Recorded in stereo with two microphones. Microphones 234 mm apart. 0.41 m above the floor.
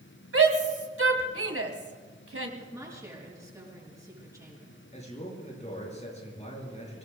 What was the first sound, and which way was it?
A shout, 70° right (ahead or behind).